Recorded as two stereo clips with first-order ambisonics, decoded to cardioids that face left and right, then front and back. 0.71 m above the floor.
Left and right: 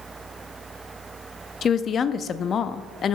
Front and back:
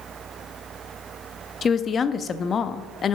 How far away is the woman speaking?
About 0.5 m.